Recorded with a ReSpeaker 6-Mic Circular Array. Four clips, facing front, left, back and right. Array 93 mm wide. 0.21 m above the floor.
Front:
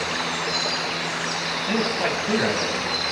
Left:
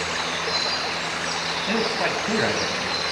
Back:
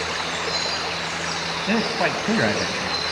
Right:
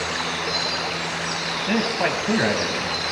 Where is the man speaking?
160° right, 1.2 m.